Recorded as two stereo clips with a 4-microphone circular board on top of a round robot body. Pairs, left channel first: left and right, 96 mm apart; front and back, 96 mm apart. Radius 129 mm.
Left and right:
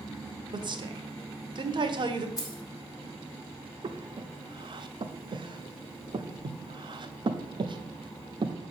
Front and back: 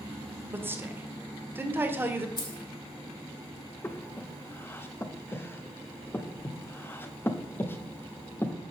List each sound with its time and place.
0.5 s a woman speaking: 115° right, 1.4 m
2.4 s keys jangling: 40° left, 2 m
3.8 s breathing: 65° right, 0.8 m